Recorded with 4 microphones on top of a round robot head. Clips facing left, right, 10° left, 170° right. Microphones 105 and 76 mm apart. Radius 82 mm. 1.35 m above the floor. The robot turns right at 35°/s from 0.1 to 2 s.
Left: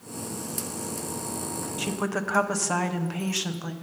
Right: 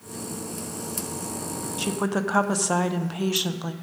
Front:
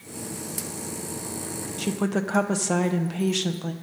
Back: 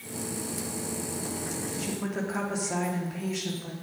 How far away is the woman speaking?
About 0.9 m.